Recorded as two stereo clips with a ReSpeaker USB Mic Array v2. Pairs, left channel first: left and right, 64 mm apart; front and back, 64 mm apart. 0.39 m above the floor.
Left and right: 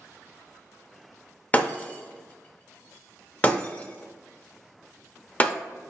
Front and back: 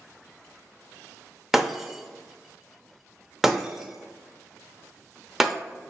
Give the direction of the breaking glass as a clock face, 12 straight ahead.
8 o'clock.